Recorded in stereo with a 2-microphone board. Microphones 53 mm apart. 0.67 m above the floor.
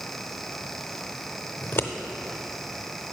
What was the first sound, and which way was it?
Scissors, 45° left (ahead or behind).